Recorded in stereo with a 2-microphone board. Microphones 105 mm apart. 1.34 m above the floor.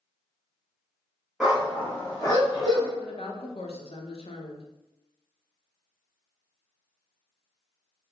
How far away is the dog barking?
About 0.9 m.